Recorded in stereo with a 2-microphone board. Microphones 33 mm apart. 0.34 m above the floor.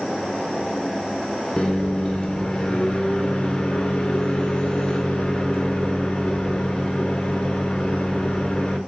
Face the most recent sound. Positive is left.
turn(degrees=20)  # may be behind; listen again after turning